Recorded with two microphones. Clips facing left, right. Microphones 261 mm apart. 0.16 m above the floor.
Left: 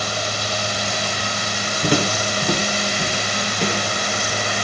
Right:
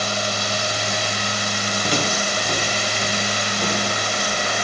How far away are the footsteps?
About 3.5 m.